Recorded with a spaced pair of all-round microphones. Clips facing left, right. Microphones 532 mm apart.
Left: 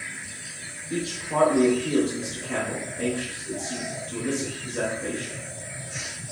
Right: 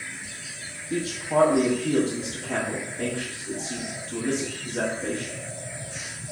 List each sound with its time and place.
0.9 s a man speaking: 10° right (ahead or behind), 1.0 m